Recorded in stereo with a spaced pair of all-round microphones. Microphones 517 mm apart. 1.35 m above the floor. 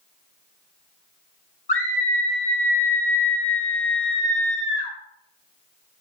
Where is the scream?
50° left (ahead or behind), 1.5 m.